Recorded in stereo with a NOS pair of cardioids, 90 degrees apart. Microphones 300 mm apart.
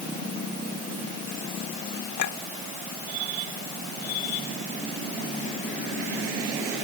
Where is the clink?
70° left.